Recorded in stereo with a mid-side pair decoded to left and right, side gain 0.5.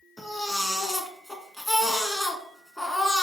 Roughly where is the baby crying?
Ahead.